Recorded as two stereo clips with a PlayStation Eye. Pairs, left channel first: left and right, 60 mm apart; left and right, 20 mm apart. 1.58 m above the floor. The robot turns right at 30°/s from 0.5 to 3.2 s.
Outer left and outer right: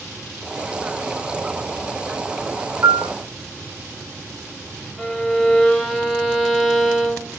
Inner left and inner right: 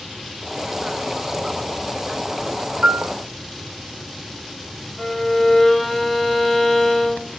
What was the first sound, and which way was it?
A piano, 50° right (ahead or behind).